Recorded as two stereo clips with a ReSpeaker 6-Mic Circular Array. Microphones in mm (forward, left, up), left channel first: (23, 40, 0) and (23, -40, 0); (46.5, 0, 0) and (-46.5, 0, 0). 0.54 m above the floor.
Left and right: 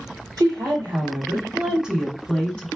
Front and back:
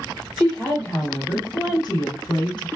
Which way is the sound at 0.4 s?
60° right.